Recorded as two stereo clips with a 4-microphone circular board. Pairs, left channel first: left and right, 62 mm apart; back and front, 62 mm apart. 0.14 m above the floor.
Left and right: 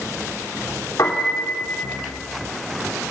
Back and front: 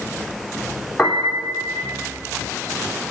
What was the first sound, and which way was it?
A piano, 85° left.